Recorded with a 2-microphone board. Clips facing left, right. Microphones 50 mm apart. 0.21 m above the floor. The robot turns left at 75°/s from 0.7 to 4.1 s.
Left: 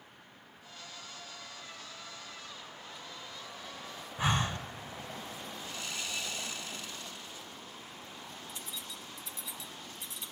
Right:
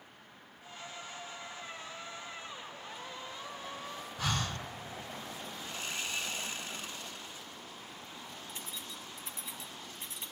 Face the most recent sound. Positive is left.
turn(degrees=-35)  # may be behind; listen again after turning